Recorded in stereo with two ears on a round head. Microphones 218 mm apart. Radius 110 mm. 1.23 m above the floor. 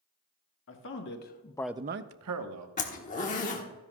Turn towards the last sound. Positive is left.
turn(degrees=30)  # may be behind; listen again after turning